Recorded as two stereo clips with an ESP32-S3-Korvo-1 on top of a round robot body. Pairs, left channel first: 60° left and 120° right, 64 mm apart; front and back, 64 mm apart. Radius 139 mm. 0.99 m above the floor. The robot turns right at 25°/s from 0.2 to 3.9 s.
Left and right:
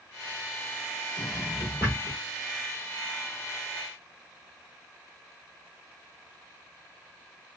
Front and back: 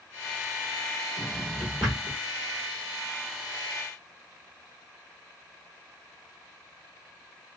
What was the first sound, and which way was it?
A drawer, 75° left.